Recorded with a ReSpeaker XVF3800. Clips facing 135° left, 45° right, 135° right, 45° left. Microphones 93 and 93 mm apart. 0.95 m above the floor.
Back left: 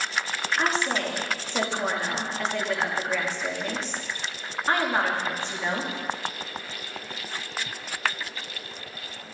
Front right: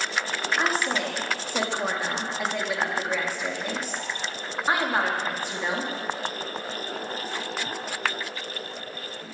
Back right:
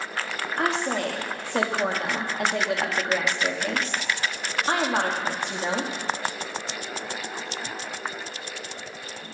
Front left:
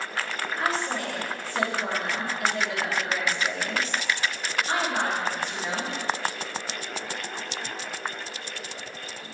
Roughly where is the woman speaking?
Behind right.